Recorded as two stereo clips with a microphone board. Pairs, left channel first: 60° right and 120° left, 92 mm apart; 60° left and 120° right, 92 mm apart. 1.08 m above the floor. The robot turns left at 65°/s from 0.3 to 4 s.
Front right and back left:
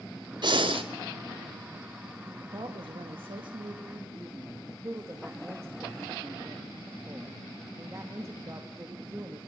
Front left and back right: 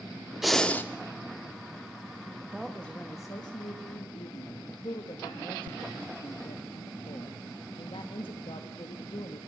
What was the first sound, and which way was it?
Breathing, 155° left.